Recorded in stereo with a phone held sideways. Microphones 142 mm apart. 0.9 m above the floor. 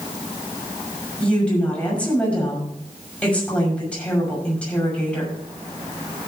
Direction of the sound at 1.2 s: 10° left (ahead or behind).